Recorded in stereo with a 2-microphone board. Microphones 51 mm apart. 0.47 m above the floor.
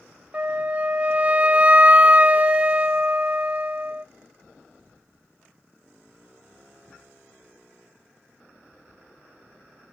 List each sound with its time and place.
0.3 s a flute: 30° right (ahead or behind), 0.5 m